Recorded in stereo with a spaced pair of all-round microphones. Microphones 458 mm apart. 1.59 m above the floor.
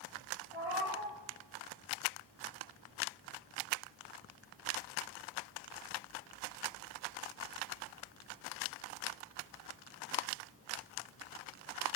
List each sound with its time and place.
0.5 s a cat meowing: 30° left (ahead or behind), 3 m